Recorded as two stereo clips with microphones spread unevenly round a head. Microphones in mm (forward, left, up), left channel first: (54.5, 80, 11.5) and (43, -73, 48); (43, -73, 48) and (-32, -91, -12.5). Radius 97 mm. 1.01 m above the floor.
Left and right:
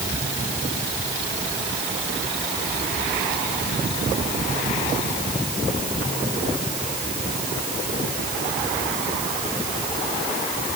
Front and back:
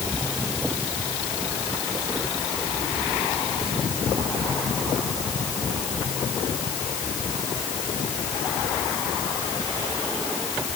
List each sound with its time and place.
Only background noise.